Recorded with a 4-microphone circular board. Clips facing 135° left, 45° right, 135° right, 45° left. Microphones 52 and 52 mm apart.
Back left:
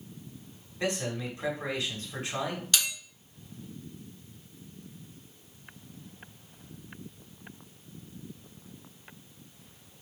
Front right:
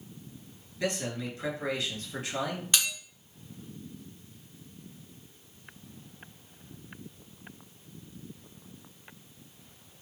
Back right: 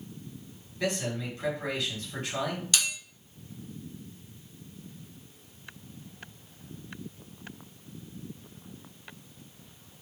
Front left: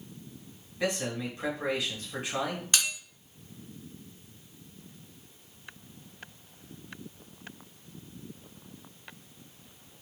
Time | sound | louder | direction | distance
0.8 | a man speaking | back left 1 dB, even | 110° left | 1.4 m
2.7 | a bell | front right 1 dB, front left 1 dB | 10° left | 1.4 m